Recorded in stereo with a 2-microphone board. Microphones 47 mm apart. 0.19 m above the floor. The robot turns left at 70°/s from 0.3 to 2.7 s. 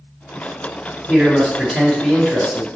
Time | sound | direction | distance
1.1 | a man speaking | 15° right (ahead or behind) | 1.2 m